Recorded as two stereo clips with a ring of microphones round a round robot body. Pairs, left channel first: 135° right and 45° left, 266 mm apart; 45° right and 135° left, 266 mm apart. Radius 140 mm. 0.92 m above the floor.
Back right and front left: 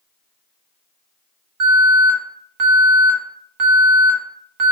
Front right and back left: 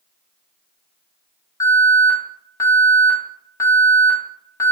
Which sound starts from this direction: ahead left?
An alarm, at 1.6 s.